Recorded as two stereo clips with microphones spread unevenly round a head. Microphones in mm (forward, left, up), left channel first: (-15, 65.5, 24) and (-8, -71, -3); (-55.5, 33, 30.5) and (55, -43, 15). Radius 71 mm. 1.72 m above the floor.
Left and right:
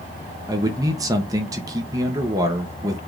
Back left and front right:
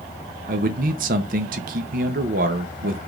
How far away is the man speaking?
About 0.9 m.